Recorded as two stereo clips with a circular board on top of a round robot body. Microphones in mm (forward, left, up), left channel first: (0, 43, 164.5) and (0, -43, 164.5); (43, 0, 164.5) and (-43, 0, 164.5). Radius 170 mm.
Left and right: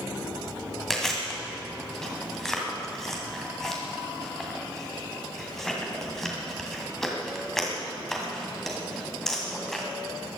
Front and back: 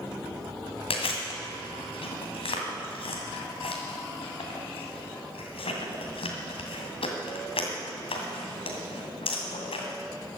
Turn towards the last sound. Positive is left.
turn(degrees=5)